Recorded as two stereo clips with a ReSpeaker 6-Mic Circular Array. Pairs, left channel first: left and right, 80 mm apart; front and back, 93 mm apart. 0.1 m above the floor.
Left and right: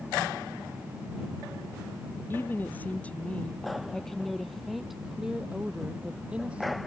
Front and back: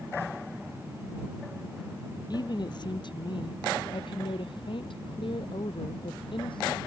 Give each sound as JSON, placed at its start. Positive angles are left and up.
{"t": 2.3, "sound": "a woman speaking", "azimuth_deg": 30}